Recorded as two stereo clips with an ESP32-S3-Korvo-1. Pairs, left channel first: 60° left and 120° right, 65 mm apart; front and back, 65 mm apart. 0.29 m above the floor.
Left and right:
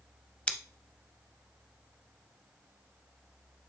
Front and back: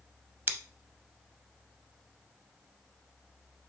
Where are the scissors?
130° left, 0.5 m.